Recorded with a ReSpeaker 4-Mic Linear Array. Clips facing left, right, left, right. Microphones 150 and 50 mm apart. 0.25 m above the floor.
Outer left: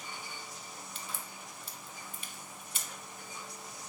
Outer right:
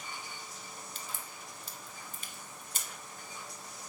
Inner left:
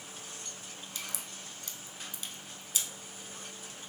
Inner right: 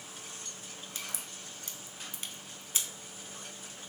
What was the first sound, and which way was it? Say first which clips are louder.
A crack: outer left 1 dB, even; 40° right (ahead or behind).